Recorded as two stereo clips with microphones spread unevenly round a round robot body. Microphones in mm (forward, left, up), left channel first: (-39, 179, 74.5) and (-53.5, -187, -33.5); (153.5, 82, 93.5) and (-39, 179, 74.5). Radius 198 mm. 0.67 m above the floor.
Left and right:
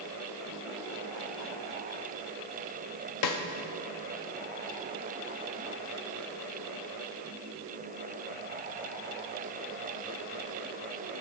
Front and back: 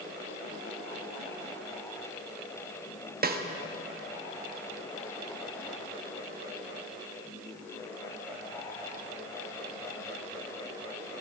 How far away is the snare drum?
About 1.2 m.